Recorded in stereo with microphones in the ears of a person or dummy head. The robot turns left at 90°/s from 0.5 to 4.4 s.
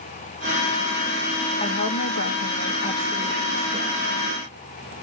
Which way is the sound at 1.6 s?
155° left.